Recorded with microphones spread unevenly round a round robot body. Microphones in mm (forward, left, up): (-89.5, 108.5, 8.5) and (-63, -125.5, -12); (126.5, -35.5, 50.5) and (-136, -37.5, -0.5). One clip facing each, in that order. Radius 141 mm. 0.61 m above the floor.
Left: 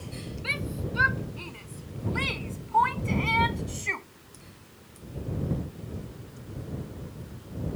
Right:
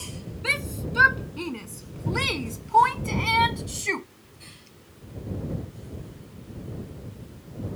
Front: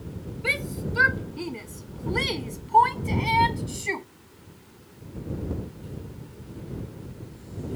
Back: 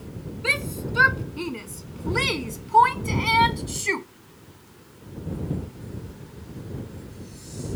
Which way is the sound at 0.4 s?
100° right.